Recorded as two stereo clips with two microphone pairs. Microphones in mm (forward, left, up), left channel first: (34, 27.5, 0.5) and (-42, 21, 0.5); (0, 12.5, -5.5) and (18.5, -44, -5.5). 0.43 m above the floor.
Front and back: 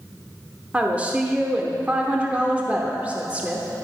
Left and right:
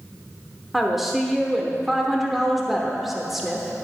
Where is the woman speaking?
150° right, 0.9 m.